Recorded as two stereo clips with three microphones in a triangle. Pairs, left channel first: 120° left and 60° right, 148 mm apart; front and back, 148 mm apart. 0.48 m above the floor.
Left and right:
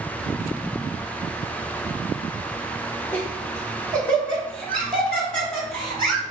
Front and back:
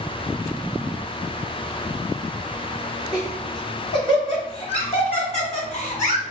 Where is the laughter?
50° left, 1.3 m; by 6.2 s 35° left, 3 m.